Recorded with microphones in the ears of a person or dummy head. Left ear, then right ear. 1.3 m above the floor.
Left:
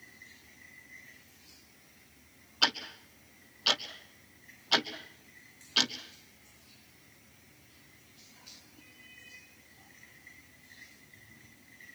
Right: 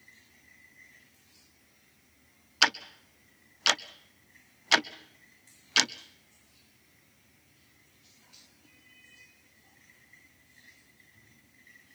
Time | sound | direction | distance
2.6 | ticking | 55° right (ahead or behind) | 0.8 m